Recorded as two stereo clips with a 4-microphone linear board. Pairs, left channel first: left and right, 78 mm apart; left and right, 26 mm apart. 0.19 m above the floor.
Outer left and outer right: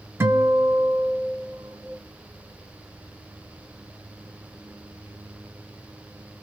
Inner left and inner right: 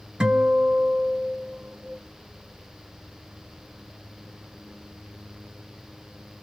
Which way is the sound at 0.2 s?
35° right (ahead or behind).